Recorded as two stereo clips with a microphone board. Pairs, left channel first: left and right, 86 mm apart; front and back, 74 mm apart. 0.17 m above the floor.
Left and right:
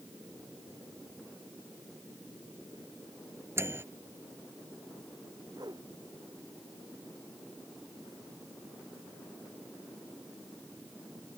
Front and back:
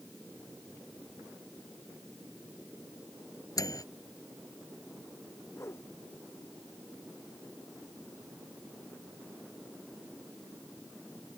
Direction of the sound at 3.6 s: 30° right.